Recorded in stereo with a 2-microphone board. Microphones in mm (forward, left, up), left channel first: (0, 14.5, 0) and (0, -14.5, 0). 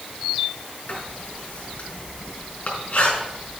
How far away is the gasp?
I don't hear a gasp.